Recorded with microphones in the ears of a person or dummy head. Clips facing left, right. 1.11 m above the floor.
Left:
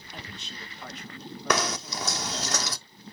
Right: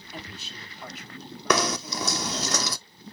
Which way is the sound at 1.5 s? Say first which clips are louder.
Right 3 dB; 85° right.